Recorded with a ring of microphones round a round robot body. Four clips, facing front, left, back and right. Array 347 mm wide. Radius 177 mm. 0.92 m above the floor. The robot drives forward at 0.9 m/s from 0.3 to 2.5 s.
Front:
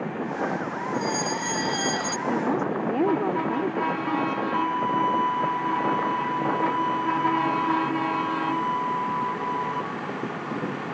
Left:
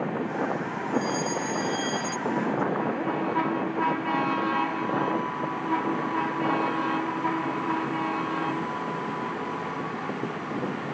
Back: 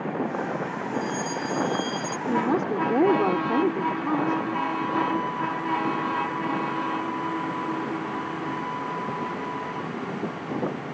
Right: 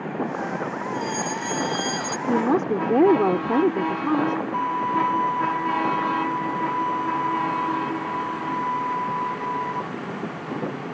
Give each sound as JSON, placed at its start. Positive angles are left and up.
{"t": 0.9, "sound": "a fire alarm", "azimuth_deg": -35}
{"t": 2.3, "sound": "a woman speaking", "azimuth_deg": -95}
{"t": 4.5, "sound": "a violin", "azimuth_deg": -55}